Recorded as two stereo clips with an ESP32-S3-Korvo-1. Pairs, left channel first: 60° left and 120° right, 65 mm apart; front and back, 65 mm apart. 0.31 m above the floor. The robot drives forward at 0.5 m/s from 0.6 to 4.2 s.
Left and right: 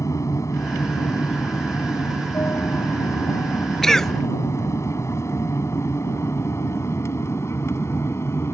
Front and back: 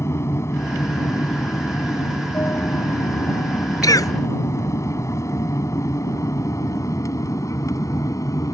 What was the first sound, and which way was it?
An aircraft, 35° left.